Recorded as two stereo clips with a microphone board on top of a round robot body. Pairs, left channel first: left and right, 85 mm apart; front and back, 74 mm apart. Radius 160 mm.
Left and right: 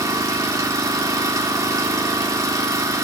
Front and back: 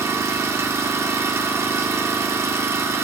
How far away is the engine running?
About 2 m.